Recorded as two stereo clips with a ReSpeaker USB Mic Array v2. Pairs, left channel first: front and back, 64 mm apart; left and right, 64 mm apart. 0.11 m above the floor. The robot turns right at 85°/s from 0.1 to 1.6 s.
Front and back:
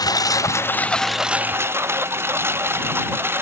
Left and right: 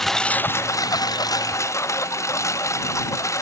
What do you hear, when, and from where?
0.0 s a lawn mower: 5° left; by 3.4 s 125° left